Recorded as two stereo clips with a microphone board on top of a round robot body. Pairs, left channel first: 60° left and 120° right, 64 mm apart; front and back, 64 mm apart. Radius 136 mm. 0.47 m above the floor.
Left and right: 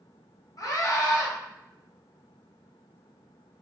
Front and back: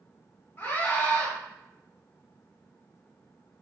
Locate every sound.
0.6 s a scream: 50° left, 2 m